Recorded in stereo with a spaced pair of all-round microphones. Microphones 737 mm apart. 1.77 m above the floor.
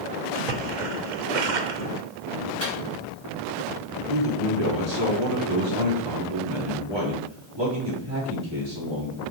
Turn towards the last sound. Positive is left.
turn(degrees=-35)  # may be behind; listen again after turning